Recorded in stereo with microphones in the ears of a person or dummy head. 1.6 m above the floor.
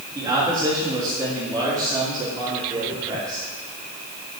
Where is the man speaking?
20° right (ahead or behind), 3.5 m.